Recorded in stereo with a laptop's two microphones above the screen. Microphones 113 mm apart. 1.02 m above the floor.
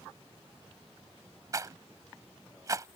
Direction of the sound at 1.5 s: 30° right (ahead or behind).